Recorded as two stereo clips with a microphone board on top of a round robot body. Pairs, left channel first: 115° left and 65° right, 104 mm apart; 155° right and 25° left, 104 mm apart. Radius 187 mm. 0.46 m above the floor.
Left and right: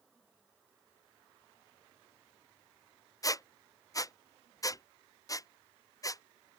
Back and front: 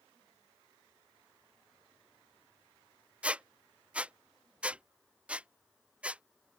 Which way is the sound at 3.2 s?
95° left.